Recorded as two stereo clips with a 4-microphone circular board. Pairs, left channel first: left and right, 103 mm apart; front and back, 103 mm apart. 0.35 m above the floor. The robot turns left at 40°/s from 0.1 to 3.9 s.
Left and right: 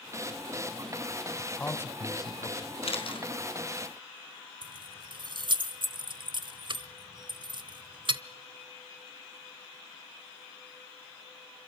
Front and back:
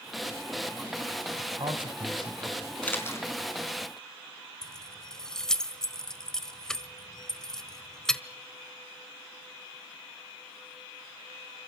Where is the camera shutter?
75° left, 4 m; by 3.3 s 55° left, 4 m.